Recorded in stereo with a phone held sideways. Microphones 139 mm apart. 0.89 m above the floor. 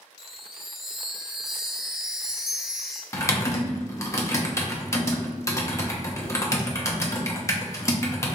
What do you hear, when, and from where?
0.2 s a chime: 5° right (ahead or behind), 0.7 m
3.1 s typing on a keyboard: 20° left (ahead or behind), 1.0 m